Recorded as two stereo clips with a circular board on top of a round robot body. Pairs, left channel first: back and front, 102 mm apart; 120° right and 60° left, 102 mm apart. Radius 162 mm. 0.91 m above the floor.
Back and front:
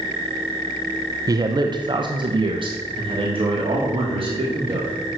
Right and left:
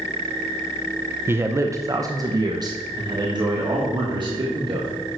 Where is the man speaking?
10° left, 0.9 m; by 4.9 s 25° left, 2.5 m.